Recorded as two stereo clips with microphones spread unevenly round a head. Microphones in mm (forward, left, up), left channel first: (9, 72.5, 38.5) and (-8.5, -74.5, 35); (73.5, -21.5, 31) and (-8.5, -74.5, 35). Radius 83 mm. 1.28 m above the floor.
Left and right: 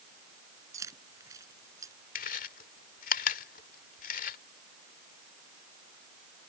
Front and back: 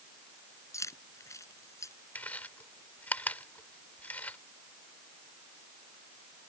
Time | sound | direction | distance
0.7 | keys jangling | 25° right | ?
2.1 | chewing | 115° left | ?